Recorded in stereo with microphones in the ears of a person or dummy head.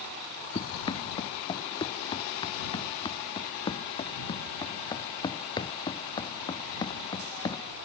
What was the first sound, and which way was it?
Running footsteps, 25° left (ahead or behind).